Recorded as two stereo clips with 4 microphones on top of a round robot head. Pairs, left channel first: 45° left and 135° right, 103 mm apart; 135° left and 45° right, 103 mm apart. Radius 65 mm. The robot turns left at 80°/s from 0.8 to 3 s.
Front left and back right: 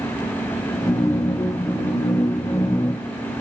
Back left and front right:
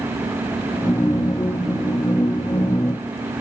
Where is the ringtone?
No ringtone in this recording.